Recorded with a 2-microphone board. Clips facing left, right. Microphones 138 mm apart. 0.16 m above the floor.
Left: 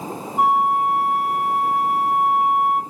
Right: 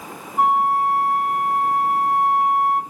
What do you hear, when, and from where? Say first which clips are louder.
0.4 s a flute: even; 5° left (ahead or behind), 0.8 m